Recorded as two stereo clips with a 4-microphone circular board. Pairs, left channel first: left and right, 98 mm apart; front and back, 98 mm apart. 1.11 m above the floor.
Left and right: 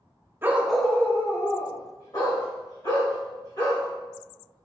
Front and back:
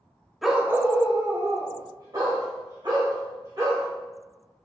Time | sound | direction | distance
0.4 | a dog barking | 90° right | 0.6 m